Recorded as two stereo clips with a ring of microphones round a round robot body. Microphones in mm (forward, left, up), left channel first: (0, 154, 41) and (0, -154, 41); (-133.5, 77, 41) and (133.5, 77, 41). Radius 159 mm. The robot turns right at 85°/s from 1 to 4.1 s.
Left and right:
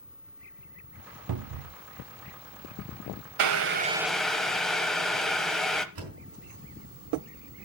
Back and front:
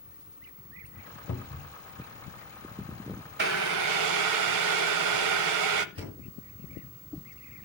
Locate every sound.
1.3 s a cupboard door: 115° right, 0.5 m; by 1.8 s 75° right, 0.5 m
3.4 s boiling: 60° right, 0.8 m; by 5.8 s straight ahead, 0.8 m
6.0 s a door slam: 75° right, 4.5 m